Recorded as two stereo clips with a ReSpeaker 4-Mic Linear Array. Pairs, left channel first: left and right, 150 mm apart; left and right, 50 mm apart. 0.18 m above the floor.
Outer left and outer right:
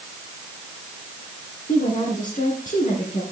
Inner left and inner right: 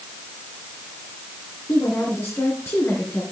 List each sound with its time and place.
1.7 s a woman speaking: 60° left (ahead or behind), 3 m